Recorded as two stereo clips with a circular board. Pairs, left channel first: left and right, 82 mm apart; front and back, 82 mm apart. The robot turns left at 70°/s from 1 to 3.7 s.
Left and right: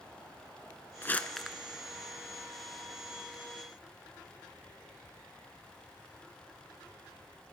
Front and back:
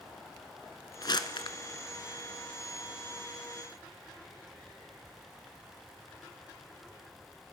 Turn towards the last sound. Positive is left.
turn(degrees=-160)